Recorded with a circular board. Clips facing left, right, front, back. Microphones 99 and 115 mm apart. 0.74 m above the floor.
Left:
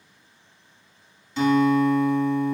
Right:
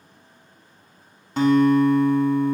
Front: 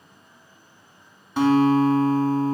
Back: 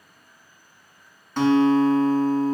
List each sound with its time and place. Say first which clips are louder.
1.4 s a guitar: right 3 dB, even; 80° right, 0.9 m